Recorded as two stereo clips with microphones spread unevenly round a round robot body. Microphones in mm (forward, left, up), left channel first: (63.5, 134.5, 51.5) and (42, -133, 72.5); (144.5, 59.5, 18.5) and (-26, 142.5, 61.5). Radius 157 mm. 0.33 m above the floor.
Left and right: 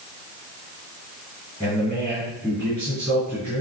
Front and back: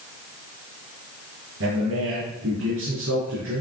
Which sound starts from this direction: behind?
A man speaking, at 1.6 s.